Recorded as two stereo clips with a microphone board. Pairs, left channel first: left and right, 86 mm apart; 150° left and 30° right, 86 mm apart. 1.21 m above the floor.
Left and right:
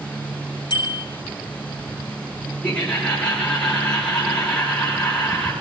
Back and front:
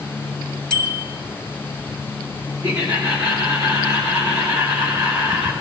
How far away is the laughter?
About 4.5 m.